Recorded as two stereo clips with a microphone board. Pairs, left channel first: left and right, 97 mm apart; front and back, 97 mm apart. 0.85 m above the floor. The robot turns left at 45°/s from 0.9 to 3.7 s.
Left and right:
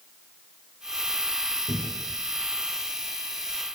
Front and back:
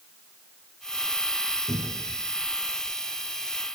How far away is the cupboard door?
About 1.4 m.